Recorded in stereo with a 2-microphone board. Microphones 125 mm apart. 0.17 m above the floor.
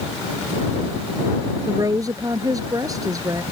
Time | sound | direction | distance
1.7 | a woman speaking | 30° right (ahead or behind) | ?